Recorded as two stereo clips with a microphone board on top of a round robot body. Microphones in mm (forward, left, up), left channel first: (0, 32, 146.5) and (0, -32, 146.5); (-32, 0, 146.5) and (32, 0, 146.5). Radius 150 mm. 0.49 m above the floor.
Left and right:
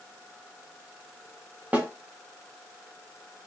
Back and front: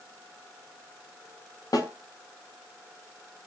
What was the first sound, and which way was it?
A snare drum, 155° right.